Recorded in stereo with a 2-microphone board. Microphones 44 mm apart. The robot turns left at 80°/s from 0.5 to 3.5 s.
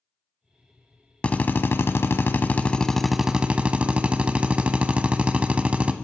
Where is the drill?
150° left, 0.7 m; by 5.9 s 35° right, 0.7 m.